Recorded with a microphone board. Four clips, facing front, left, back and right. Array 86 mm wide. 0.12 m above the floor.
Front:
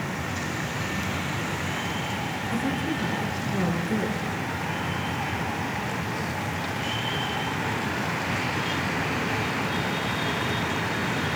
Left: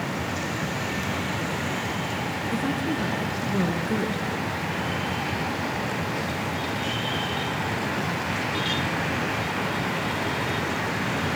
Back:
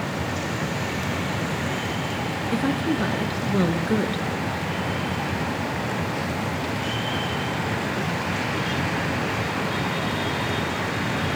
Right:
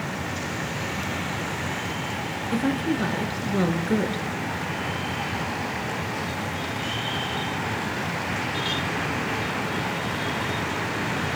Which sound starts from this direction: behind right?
A woman speaking, at 2.5 s.